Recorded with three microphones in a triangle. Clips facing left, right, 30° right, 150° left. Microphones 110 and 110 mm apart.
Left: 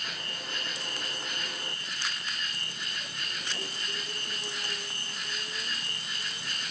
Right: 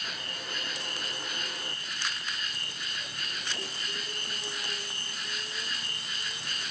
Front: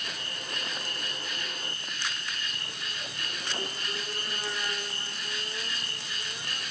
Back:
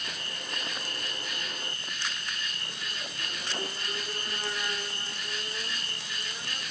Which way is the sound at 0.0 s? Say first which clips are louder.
Even, even; 10° right.